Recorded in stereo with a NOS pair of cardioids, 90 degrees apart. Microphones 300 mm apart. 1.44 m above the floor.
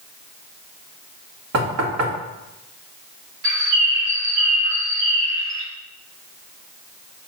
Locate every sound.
1.5 s knocking: 60° right, 2.5 m
3.4 s a bird: 65° right, 2.5 m